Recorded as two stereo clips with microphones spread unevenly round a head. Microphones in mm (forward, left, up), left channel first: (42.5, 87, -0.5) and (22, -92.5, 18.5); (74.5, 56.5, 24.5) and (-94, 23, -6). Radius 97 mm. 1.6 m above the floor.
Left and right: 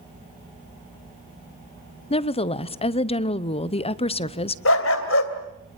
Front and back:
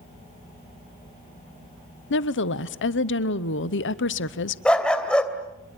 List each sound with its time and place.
2.1 s a woman speaking: 25° left, 0.9 m
4.7 s a dog barking: 90° left, 2.5 m